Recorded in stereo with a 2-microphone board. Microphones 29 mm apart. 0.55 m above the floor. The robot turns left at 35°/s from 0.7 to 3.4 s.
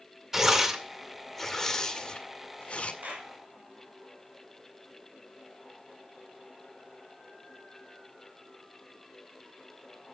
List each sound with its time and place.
0.3 s tearing paper: 15° right (ahead or behind), 1.9 m; by 2.9 s 45° left (ahead or behind), 1.9 m
3.0 s a clap: 75° right (ahead or behind), 4 m